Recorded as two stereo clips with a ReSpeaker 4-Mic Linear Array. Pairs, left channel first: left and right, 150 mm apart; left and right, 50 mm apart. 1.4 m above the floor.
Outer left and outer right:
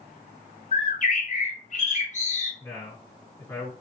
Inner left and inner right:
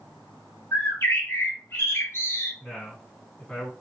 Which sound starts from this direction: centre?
A man speaking, at 2.6 s.